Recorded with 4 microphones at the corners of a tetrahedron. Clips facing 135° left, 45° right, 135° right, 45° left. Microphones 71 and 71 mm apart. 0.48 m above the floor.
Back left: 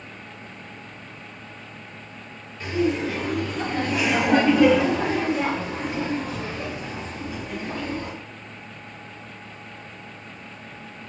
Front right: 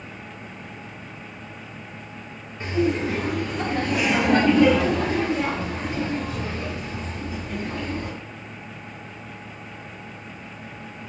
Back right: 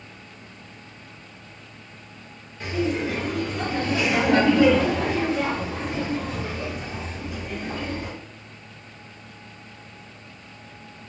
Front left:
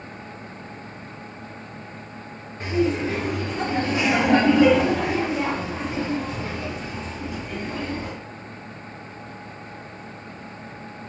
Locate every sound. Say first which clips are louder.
2.6 s laughter: even, front left 3 dB; 5° left, 1.7 m; by 8.1 s 145° left, 2.5 m